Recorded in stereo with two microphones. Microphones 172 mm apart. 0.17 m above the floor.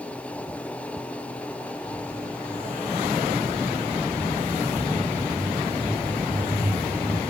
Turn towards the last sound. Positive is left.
turn(degrees=-20)  # may be behind; listen again after turning